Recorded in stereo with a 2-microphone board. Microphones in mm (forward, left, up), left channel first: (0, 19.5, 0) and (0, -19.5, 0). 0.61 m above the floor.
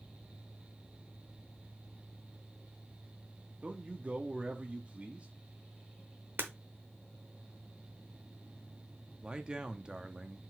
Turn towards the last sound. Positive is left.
turn(degrees=-20)  # may be behind; listen again after turning